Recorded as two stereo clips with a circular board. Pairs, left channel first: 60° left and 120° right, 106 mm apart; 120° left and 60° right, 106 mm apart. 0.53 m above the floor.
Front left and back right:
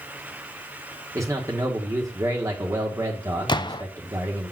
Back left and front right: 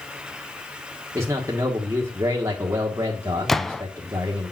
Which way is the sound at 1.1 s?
90° right.